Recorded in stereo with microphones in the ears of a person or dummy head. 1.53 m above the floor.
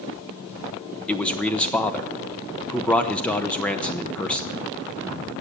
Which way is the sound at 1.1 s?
5° left (ahead or behind).